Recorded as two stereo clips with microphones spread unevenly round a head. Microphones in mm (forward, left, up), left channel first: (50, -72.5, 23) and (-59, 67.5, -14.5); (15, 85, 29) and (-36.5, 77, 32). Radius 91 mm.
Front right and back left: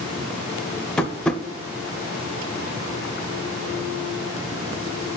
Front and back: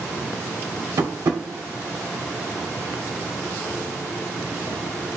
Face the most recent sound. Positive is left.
turn(degrees=-140)